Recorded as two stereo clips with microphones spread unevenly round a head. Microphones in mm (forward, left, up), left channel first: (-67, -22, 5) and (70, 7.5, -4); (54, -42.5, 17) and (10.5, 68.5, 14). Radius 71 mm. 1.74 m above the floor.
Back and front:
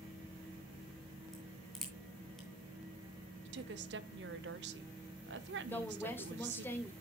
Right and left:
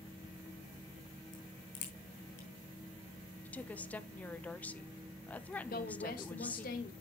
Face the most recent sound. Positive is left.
turn(degrees=-95)